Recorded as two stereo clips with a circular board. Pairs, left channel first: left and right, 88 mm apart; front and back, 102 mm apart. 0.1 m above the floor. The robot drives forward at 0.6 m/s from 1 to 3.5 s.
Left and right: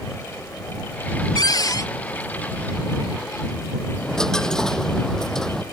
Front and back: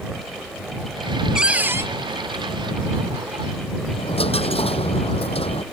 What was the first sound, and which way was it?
A cupboard door, 100° left.